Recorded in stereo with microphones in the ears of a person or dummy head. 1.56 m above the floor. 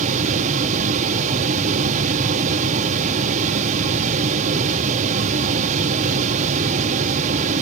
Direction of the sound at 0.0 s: 40° right (ahead or behind).